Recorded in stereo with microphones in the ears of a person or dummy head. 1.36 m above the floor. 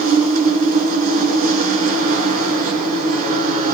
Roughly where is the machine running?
Right.